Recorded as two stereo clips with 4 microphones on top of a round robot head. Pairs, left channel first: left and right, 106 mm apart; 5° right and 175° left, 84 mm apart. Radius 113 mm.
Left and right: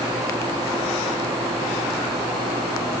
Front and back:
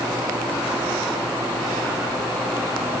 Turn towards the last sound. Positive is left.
No sound to turn to.